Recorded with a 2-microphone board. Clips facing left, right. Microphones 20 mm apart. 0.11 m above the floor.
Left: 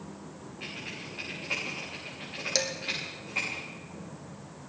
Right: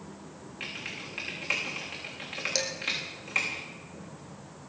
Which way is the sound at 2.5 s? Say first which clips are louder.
Left 2 dB; 15° left (ahead or behind).